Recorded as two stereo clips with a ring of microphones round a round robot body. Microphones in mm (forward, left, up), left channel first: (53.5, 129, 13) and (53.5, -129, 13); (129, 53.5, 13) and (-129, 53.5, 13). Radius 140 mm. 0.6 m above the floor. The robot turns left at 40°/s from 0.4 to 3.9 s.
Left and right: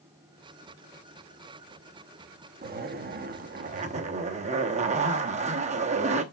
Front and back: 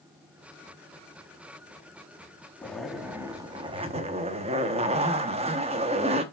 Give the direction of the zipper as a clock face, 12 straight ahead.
3 o'clock.